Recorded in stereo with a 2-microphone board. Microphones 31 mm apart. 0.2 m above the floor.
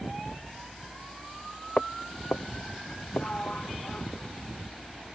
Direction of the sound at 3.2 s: 40° left (ahead or behind).